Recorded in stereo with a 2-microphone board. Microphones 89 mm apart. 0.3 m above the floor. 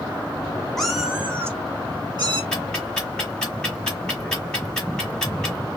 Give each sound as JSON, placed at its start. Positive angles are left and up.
{"t": 0.8, "sound": "a cat meowing", "side_deg": 5, "distance_m": 0.9}
{"t": 2.5, "sound": "ticking", "side_deg": 5, "distance_m": 2.0}